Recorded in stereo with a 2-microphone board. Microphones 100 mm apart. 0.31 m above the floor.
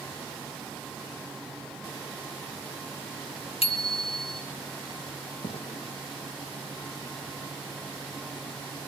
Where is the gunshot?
90° left, 5 m.